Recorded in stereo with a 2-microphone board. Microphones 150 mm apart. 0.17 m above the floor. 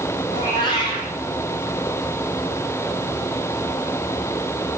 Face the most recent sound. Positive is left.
turn(degrees=30)  # may be behind; listen again after turning